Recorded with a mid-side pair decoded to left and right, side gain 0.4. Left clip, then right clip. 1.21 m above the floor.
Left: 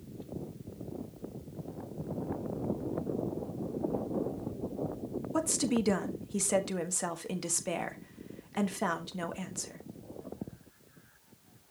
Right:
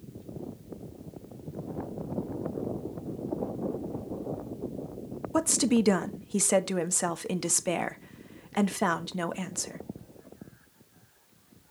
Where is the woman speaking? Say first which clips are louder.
Right 5 dB; 40° right, 1.3 m.